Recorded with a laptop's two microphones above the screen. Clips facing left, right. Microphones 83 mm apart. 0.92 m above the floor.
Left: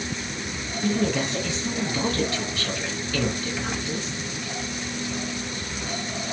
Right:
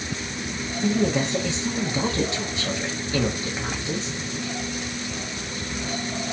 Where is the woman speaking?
20° right (ahead or behind), 0.7 m.